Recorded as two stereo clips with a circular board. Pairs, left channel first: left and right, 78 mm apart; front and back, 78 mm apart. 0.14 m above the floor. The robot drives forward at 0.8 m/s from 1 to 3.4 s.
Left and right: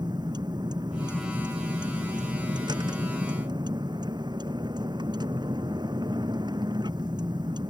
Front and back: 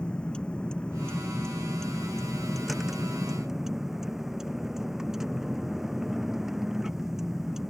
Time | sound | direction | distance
0.0 | a vehicle | 75° right | ?